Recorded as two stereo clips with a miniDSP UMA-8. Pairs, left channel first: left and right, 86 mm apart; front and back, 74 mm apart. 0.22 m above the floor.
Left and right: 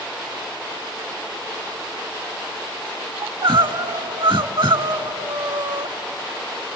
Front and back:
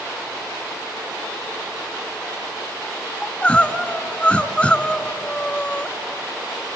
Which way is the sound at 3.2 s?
75° right.